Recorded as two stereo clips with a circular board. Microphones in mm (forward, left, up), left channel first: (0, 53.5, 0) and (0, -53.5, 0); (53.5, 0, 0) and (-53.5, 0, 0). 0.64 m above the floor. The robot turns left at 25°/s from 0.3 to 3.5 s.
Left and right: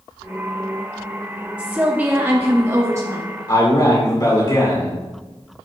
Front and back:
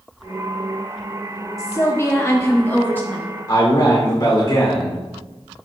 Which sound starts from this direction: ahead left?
A man speaking, at 3.5 s.